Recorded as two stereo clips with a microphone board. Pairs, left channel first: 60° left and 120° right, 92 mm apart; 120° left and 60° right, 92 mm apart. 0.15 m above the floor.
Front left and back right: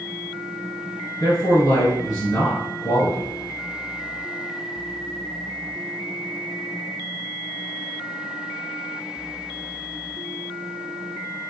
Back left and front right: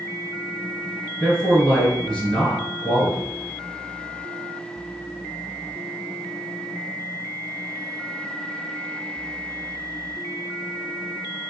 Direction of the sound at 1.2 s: 40° left.